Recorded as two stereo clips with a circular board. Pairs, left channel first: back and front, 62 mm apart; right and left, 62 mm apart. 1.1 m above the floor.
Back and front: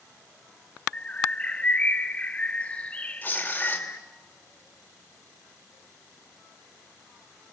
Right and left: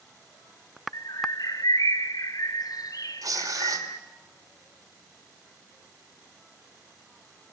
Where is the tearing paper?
115° left, 2.5 m.